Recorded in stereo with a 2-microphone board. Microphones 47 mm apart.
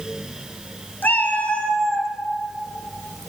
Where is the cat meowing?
40° left (ahead or behind), 0.9 m; by 2.1 s 15° right (ahead or behind), 0.6 m.